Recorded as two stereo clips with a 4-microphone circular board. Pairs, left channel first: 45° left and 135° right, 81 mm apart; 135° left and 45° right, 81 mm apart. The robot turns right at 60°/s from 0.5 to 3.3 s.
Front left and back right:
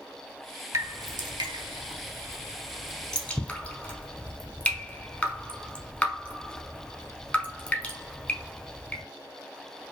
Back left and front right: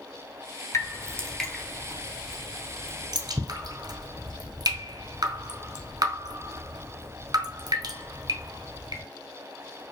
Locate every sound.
0.7 s dripping: straight behind, 0.7 m; by 9.0 s 25° right, 0.7 m